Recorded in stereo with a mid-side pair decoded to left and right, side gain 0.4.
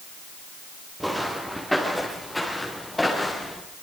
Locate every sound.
1.0 s footsteps: 5° right, 7 m; by 3.6 s 15° left, 7.5 m